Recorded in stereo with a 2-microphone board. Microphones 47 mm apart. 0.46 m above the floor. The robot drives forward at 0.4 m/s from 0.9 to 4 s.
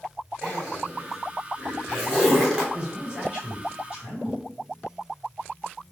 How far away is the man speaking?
About 2.0 m.